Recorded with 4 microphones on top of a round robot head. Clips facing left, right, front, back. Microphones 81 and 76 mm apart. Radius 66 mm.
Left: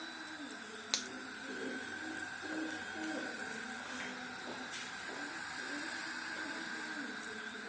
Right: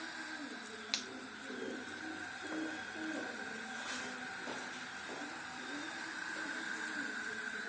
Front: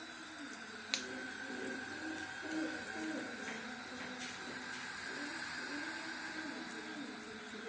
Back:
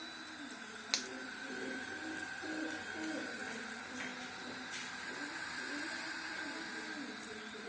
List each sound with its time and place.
0.9 s a finger snap: 120° left, 0.8 m